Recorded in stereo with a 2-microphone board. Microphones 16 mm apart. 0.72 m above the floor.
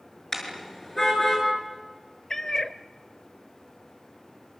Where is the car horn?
25° left (ahead or behind), 7 m; by 1.5 s 20° left (ahead or behind), 7 m.